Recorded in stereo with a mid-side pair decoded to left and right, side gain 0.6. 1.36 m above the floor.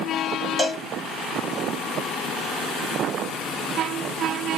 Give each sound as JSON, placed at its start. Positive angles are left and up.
{"t": 0.6, "sound": "a cowbell", "azimuth_deg": 5, "distance_m": 1.5}